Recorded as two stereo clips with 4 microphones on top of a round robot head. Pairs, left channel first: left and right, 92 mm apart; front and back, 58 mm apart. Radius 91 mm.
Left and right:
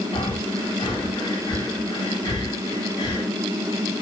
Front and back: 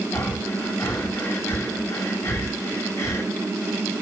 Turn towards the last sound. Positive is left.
turn(degrees=45)